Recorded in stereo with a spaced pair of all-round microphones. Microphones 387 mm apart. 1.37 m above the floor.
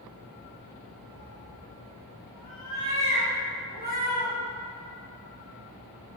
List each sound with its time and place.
1.1 s a cat meowing: 10° right (ahead or behind), 2.5 m; by 4.3 s 45° right (ahead or behind), 5 m